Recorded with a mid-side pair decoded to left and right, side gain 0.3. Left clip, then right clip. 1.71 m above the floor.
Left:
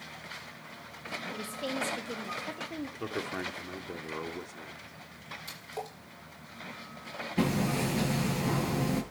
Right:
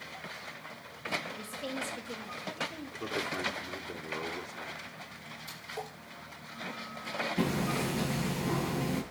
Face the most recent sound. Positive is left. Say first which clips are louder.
# left 6 dB
turn(degrees=35)